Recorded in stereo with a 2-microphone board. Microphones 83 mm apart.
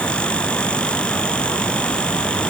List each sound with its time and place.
Only background noise.